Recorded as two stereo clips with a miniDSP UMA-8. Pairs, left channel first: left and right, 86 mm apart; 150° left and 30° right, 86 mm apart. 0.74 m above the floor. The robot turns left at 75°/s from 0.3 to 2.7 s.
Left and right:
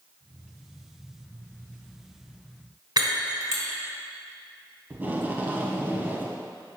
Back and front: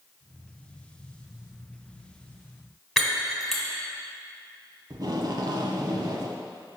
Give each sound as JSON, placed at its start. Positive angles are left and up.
{"t": 3.0, "sound": "breaking glass", "azimuth_deg": -120, "distance_m": 1.5}
{"t": 4.9, "sound": "tape being pulled", "azimuth_deg": -25, "distance_m": 0.9}